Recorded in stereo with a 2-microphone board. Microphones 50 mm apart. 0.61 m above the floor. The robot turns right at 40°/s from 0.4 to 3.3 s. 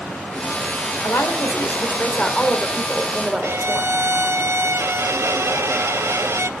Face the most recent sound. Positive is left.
turn(degrees=-60)  # may be behind; listen again after turning